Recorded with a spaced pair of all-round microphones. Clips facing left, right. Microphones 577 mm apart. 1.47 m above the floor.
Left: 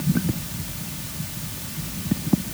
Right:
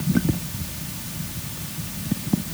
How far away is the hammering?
I don't hear hammering.